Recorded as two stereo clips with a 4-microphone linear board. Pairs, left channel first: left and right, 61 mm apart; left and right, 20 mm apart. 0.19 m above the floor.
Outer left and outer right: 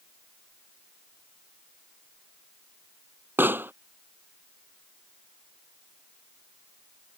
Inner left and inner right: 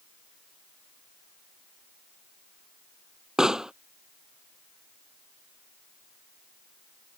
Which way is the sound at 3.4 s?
35° right (ahead or behind).